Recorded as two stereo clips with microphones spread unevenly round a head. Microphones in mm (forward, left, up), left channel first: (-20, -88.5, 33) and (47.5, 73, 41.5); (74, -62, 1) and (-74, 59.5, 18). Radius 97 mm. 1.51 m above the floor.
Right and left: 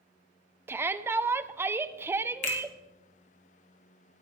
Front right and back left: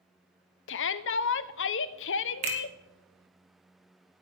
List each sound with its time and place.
0.7 s a shout: 10° right, 0.6 m
2.4 s a finger snap: 165° right, 2 m